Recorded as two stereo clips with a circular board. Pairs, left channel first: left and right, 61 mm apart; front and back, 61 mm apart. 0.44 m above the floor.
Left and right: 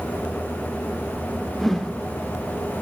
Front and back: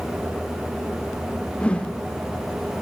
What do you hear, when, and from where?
1.6 s a whoosh: 10° left, 1.2 m